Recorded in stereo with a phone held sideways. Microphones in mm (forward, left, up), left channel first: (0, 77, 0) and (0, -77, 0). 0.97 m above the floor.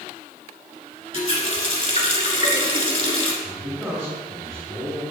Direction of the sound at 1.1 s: 40° left (ahead or behind).